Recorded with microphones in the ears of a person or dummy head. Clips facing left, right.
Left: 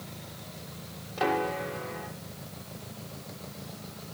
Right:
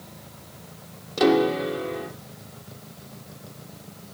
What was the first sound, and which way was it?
A piano, 55° right (ahead or behind).